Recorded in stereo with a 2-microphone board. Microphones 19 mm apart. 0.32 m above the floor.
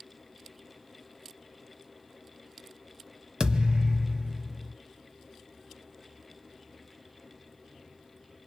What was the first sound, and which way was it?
A thud, 45° right (ahead or behind).